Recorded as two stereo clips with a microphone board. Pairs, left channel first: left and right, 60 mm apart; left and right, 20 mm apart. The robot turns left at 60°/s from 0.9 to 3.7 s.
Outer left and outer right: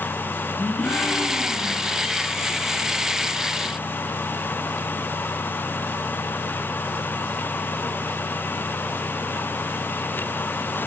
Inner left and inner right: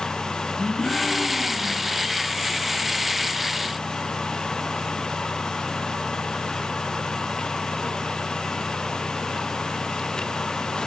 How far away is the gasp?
About 1.8 m.